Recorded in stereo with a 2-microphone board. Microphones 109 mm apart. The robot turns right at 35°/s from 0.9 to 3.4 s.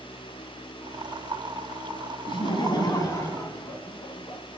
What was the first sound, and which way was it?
Laughter, 105° left.